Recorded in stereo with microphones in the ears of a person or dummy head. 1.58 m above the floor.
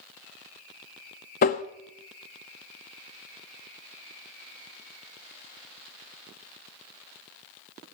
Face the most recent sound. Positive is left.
turn(degrees=40)  # may be behind; listen again after turning